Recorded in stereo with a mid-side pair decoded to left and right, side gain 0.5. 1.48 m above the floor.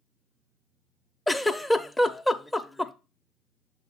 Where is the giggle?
10° left, 0.7 m.